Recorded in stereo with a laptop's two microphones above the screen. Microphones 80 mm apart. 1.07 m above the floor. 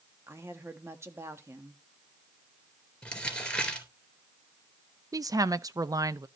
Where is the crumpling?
10° left (ahead or behind), 3.5 m.